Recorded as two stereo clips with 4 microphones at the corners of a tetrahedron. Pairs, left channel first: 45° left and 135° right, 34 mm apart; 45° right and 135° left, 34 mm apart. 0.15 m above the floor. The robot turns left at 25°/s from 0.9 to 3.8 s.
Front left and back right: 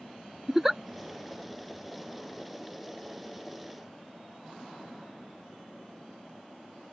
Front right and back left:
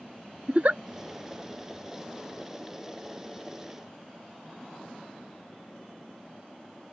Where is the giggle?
145° left.